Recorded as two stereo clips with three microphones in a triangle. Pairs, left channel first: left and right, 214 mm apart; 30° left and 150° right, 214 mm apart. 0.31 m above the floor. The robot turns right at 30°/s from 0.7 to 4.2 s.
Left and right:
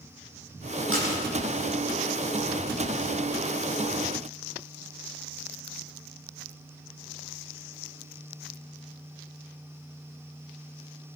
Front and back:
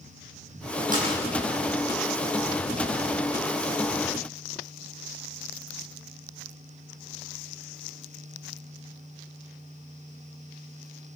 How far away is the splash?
About 9 m.